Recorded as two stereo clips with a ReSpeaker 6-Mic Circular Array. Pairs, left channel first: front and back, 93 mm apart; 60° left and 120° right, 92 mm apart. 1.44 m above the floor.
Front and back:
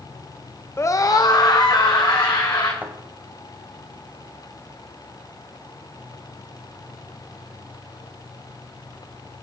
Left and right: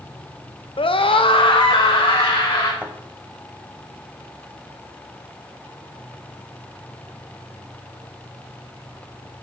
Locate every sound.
0.8 s a scream: 60° left, 0.5 m; by 2.7 s 40° left, 2 m
2.8 s a thud: 155° right, 1.3 m